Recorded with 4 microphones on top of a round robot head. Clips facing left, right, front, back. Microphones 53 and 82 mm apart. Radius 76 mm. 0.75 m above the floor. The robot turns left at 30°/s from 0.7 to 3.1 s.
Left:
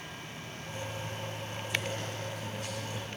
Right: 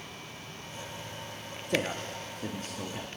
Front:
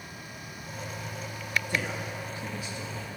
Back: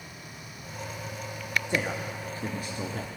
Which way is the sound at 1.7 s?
110° right.